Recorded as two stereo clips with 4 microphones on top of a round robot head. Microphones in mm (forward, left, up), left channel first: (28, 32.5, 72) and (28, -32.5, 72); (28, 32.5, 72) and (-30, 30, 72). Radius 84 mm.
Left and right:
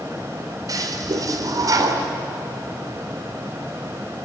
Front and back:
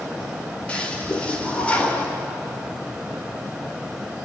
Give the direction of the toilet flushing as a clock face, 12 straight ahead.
2 o'clock.